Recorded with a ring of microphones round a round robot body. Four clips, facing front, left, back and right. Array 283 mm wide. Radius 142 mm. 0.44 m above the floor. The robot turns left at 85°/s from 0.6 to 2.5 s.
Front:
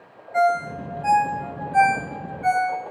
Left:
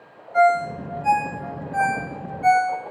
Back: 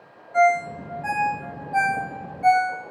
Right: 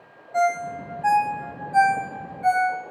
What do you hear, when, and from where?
0.3 s a ringtone: 65° right, 1.7 m; by 2.8 s 135° left, 1.7 m